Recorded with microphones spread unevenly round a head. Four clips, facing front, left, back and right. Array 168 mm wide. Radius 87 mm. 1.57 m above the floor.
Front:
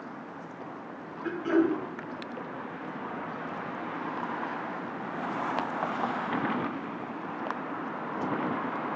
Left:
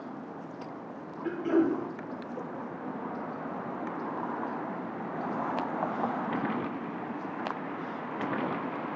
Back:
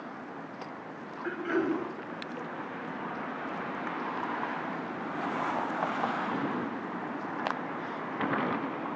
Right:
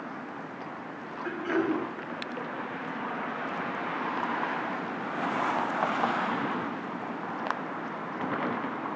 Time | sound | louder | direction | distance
1.2 | throat clearing | left 2 dB, front 4 dB | 50° left | 3 m